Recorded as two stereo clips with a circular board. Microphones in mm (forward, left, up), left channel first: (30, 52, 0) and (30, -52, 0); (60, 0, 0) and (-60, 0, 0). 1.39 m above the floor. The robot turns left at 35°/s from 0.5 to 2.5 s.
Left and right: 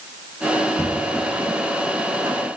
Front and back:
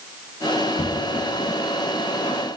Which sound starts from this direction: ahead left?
Knocking, at 0.8 s.